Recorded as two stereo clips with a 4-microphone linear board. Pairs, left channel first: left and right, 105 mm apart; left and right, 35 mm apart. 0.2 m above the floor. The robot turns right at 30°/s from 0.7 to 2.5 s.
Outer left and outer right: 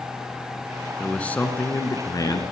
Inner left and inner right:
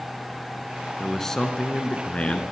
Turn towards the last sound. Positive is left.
turn(degrees=50)